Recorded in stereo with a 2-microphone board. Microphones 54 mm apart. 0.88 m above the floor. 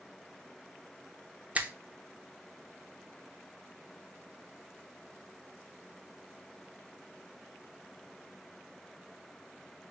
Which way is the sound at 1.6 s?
25° right (ahead or behind).